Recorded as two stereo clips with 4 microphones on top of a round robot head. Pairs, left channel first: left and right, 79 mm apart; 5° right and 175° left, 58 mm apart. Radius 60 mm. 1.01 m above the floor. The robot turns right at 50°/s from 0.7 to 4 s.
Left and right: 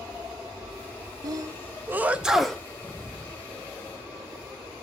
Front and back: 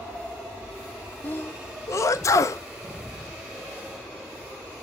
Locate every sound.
1.2 s a sneeze: 60° right, 0.5 m; by 2.6 s 10° left, 0.5 m